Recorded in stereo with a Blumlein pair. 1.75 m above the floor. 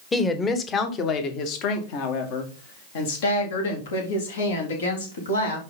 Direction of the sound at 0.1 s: 15° left.